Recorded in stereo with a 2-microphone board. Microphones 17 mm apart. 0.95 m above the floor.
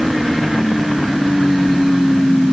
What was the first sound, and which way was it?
Only background noise.